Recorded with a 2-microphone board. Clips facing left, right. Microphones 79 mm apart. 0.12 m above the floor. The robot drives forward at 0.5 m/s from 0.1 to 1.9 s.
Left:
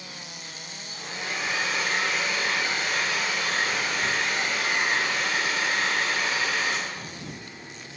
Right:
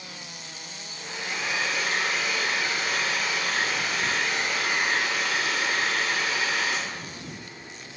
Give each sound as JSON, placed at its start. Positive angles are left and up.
{"t": 0.9, "sound": "a hair dryer", "side_deg": 35, "distance_m": 1.4}